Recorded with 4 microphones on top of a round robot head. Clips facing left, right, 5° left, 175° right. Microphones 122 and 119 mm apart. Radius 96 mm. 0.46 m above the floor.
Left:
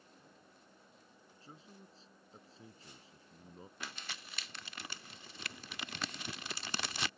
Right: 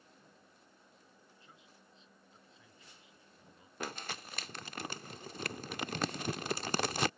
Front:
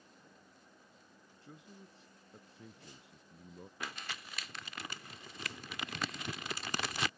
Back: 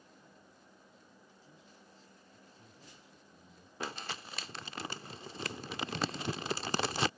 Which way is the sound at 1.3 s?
35° left.